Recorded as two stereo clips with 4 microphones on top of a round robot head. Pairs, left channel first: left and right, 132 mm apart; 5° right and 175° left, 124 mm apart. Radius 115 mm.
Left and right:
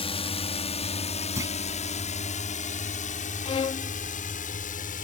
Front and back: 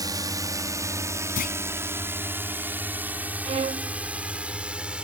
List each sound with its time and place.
0.0 s a drone: 125° left; by 5.0 s 95° left
1.4 s a clunk: 15° right
3.4 s a violin: 140° left